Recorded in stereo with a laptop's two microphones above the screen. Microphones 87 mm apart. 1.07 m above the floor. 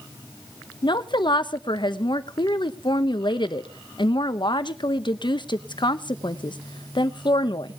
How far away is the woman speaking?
About 1.0 m.